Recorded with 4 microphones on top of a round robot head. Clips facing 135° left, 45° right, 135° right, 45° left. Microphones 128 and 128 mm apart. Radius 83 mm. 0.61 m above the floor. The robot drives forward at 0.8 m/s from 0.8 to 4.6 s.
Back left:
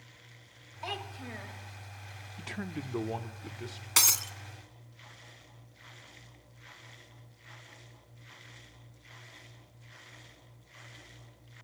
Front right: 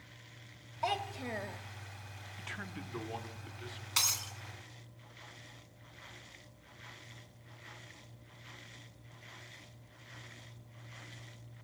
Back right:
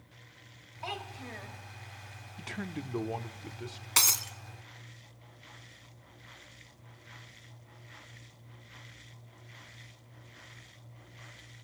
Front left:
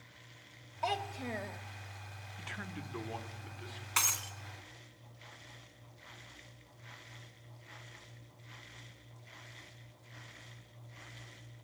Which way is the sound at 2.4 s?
Straight behind.